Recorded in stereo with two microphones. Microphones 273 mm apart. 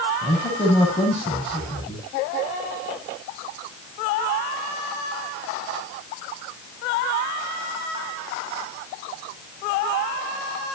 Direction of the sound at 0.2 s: 5° left (ahead or behind).